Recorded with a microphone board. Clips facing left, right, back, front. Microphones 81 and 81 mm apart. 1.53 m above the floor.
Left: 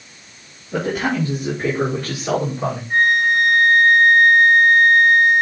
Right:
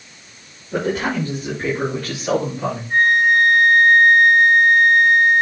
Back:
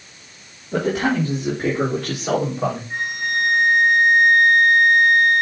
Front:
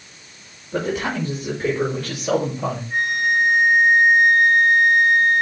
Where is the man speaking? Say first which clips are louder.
Even, back 4 dB; straight behind, 4 m; by 2.8 s 155° left, 4.5 m.